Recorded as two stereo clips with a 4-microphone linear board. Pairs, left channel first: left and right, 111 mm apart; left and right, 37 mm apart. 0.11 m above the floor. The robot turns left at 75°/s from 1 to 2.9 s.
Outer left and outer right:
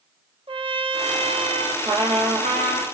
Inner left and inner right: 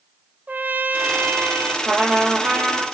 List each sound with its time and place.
0.5 s a trumpet: 60° right, 0.6 m; by 1.8 s 115° right, 0.6 m
1.9 s a trumpet: 40° right, 1.4 m; by 2.8 s 115° right, 1.4 m